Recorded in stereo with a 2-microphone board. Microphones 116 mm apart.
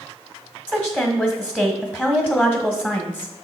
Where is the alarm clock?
I don't hear an alarm clock.